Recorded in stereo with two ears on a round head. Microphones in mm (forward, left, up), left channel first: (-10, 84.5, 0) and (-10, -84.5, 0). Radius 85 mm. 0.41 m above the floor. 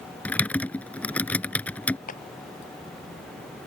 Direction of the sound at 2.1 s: 45° left (ahead or behind).